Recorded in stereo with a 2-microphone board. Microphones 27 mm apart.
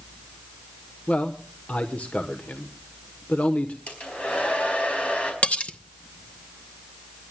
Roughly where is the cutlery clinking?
Left.